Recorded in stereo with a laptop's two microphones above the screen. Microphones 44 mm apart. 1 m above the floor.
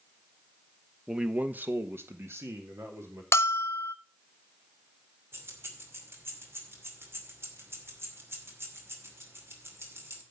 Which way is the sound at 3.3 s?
70° left (ahead or behind).